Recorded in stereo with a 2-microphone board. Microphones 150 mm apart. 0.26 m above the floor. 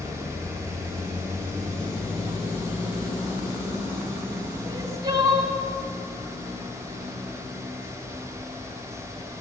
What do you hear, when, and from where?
4.7 s crying: 25° right (ahead or behind), 1.8 m